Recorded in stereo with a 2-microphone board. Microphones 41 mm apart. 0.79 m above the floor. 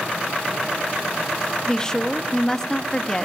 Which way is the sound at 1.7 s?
15° left (ahead or behind).